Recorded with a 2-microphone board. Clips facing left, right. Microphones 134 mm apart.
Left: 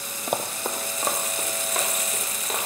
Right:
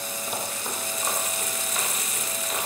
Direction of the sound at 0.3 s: 60° left (ahead or behind).